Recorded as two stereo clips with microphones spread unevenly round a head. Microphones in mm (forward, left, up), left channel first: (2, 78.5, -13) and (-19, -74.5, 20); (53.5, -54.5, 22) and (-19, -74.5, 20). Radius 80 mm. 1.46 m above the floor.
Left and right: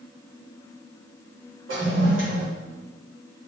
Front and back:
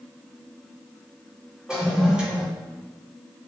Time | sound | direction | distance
1.7 | a toilet flushing | 85° right | 5 m